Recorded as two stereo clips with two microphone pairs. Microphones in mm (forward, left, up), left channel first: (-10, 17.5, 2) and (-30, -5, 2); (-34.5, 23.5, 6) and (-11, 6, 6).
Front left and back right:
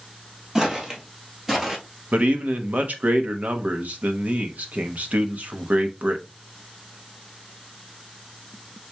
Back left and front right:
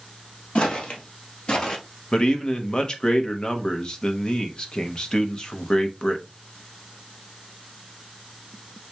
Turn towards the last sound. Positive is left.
turn(degrees=-160)